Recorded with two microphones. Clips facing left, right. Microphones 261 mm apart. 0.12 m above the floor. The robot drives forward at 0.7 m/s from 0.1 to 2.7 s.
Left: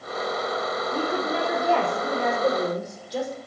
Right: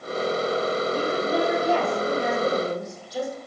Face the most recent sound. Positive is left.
turn(degrees=70)  # may be behind; listen again after turning